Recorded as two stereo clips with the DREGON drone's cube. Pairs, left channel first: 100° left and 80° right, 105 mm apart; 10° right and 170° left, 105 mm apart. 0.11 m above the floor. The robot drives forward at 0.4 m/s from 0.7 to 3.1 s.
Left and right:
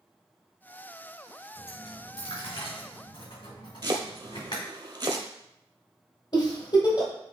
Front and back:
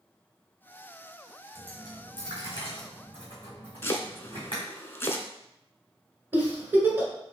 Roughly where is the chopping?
Right.